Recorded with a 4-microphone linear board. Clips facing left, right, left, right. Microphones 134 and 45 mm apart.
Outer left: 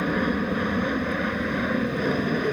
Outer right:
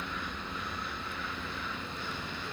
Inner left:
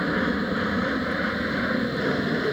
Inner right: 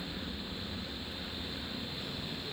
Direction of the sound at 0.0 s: 65° left (ahead or behind).